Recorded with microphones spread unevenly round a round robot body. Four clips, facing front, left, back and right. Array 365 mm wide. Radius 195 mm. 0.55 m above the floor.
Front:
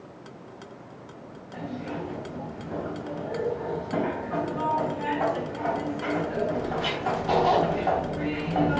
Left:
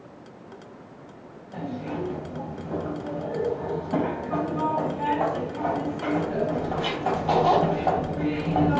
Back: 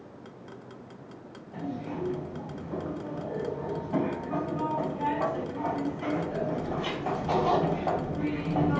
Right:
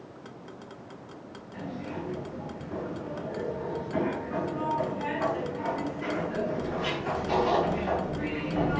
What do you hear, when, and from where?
1.5 s a zipper: 65° left, 3.5 m